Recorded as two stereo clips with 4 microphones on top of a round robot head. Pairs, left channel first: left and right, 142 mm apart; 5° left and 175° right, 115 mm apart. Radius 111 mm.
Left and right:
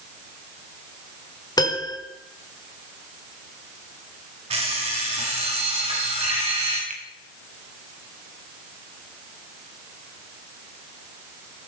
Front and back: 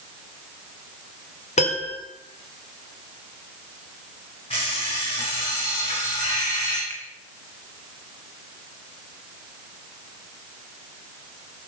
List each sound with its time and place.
1.6 s a piano: 25° left, 2 m
4.5 s an alarm clock: 45° right, 4 m
6.9 s a finger snap: 65° right, 2.5 m